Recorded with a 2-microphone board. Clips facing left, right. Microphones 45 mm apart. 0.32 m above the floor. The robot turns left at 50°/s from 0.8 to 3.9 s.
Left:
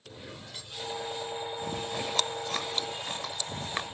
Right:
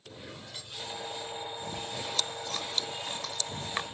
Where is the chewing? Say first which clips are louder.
Left 4 dB; 35° left (ahead or behind); by 3.8 s centre (ahead or behind).